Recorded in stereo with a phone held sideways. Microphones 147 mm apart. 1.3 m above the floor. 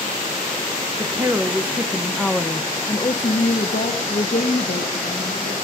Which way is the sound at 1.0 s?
20° right (ahead or behind).